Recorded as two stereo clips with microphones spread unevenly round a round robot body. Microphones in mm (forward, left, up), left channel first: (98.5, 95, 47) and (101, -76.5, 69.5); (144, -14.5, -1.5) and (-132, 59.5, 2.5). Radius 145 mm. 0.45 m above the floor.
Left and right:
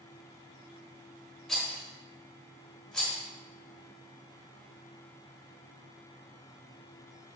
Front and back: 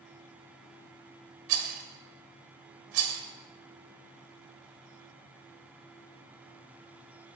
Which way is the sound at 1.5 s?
170° left.